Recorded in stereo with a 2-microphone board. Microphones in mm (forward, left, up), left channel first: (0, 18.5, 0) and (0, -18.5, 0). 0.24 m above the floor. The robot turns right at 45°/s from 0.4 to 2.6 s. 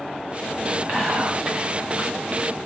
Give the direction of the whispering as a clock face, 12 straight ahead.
2 o'clock.